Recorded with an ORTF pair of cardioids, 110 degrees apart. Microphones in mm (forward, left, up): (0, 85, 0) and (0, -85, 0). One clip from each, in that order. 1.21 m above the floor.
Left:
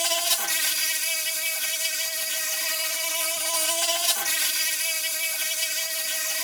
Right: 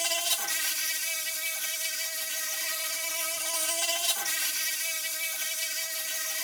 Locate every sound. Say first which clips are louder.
0.0 s an insect: left 4 dB; 25° left